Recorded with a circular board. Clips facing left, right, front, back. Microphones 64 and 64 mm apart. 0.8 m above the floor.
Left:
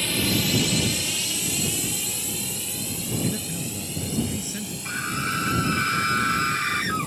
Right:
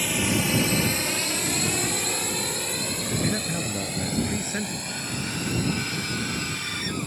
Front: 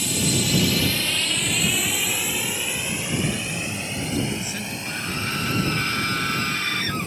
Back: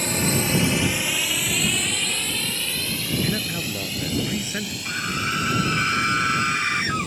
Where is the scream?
115° left.